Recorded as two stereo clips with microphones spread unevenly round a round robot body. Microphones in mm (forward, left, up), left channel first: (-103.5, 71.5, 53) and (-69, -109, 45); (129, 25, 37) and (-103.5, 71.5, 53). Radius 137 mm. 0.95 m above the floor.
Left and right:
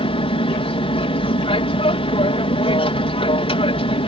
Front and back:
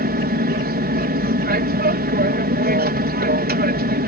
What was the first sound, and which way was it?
An aircraft, 145° left.